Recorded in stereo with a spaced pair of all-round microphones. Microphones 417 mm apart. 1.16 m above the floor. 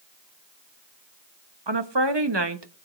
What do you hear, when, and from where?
1.7 s a woman speaking: 70° right (ahead or behind), 1.3 m